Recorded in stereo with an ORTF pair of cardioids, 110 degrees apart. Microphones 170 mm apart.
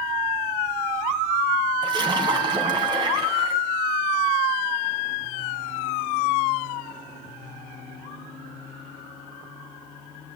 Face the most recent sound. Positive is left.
turn(degrees=-25)